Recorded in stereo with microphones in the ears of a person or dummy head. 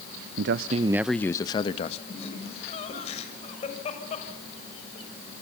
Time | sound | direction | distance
0.4 | a man speaking | 70° right (ahead or behind) | 0.7 m
2.1 | laughter | 35° left (ahead or behind) | 6 m